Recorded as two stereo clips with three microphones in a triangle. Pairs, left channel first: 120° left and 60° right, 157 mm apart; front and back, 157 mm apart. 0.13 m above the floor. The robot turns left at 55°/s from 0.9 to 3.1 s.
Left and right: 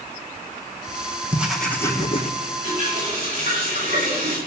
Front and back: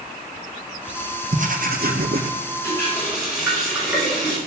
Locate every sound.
1.3 s writing: 140° right, 2 m; by 2.3 s 165° left, 2 m
2.6 s a running tap: 70° right, 7.5 m; by 4.4 s 95° right, 7.5 m